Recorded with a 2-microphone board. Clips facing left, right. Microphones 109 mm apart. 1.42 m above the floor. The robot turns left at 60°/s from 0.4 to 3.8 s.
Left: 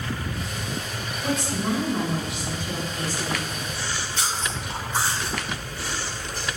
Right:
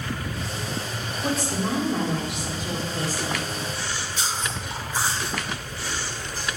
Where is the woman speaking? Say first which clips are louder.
Even; 25° right, 4 m; by 3.5 s 160° right, 4 m.